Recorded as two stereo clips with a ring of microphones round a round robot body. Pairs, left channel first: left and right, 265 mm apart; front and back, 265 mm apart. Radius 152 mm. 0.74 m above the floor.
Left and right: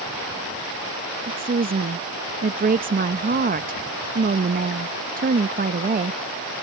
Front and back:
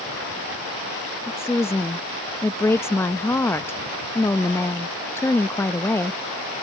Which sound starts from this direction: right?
A woman speaking, at 1.3 s.